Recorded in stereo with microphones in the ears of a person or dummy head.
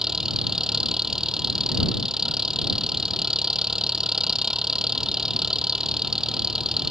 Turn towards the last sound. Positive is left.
turn(degrees=-5)  # may be behind; listen again after turning